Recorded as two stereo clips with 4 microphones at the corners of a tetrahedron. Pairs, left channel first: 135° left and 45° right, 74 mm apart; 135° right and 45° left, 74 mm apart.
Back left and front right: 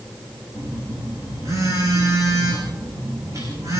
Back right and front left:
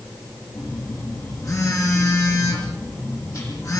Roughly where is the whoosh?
I don't hear a whoosh.